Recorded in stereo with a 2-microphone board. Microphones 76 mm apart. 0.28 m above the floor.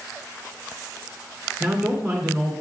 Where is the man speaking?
15° right (ahead or behind), 3.5 m.